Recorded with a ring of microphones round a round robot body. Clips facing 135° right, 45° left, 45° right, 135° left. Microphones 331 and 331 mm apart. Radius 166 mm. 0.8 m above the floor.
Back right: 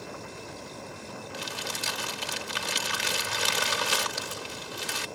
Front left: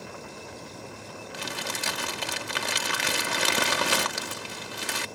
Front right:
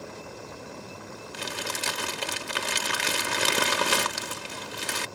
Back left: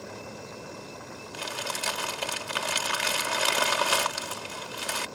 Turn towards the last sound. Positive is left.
turn(degrees=15)